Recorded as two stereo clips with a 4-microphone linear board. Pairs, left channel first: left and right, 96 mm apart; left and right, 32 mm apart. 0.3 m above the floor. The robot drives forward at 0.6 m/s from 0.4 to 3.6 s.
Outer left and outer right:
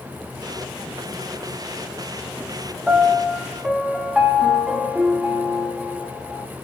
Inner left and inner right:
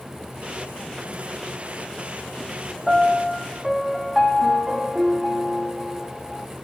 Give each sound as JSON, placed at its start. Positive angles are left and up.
{"t": 2.9, "sound": "a piano", "side_deg": -5, "distance_m": 1.7}